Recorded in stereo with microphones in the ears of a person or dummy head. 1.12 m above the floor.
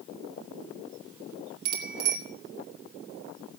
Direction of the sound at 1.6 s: 85° right.